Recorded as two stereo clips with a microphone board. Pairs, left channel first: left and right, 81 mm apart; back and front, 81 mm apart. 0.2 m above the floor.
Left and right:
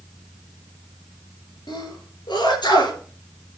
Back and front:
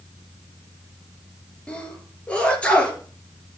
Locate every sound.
1.7 s a sneeze: 105° left, 4 m